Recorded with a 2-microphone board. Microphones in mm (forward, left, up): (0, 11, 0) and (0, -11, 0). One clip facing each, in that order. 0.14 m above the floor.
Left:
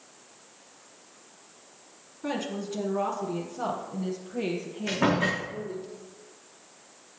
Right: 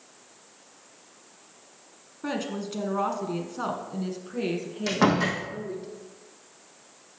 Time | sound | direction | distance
2.2 | a woman speaking | 20° right (ahead or behind) | 1.5 m
4.9 | a door slam | 75° right (ahead or behind) | 4.5 m